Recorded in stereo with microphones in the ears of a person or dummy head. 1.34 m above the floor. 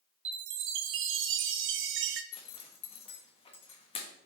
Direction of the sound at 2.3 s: 25° left (ahead or behind).